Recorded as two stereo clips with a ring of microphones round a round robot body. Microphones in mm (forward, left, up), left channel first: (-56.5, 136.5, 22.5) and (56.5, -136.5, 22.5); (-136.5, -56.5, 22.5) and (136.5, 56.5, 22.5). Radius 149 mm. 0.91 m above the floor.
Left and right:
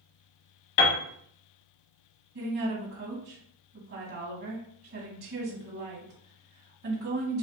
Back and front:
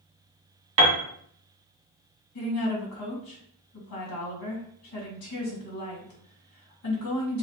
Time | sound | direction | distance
0.8 | a piano | 60° left | 1.1 m
2.4 | a woman speaking | 115° right | 2 m